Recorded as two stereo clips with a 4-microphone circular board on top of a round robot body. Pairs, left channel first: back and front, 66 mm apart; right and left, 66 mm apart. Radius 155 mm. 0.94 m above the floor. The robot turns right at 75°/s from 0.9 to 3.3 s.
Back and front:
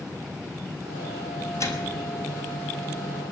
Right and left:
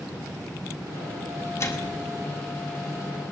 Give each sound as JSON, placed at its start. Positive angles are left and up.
{"t": 1.6, "sound": "a microwave", "azimuth_deg": -135, "distance_m": 5.5}